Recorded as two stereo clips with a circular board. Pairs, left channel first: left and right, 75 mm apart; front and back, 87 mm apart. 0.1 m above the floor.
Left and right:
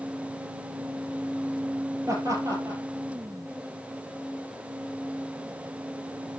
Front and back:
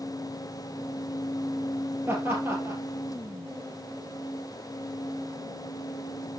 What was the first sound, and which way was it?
Laughter, 120° right.